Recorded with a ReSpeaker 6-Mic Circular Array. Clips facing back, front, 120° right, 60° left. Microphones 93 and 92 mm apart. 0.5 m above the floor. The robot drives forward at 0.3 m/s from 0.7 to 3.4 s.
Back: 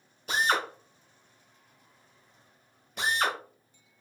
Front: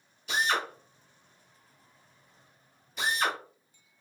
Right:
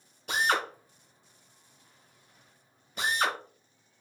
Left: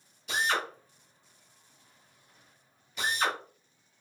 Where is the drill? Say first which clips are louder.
Back 2 dB, right 2 dB; 145° right, 1.1 m; by 3.4 s 160° right, 1.7 m.